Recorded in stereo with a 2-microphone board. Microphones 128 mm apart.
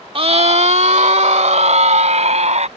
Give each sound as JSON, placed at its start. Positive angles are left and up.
{"t": 0.1, "sound": "a scream", "side_deg": -45}